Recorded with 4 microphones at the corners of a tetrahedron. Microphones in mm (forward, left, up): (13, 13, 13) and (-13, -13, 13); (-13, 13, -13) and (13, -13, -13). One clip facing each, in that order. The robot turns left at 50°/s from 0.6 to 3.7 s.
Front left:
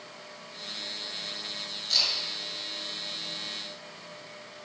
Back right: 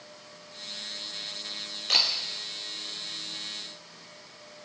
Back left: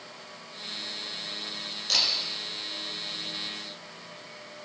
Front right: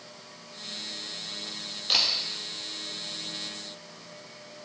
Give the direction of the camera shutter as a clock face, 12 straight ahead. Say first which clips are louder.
Back right 3 dB, front right 1 dB; 4 o'clock.